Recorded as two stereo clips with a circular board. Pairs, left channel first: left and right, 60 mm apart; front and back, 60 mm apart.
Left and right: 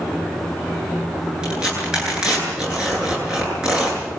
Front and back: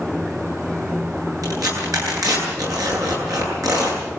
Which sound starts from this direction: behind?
Tearing paper, at 1.4 s.